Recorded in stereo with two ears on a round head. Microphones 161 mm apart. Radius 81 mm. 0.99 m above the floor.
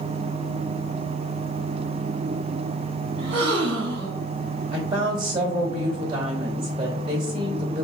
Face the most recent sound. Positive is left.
turn(degrees=-30)  # may be behind; listen again after turning